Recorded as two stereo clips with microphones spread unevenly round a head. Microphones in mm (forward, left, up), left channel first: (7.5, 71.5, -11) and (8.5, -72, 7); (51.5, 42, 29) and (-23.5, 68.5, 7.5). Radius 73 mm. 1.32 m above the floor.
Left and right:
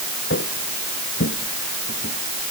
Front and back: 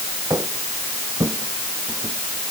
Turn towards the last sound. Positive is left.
turn(degrees=105)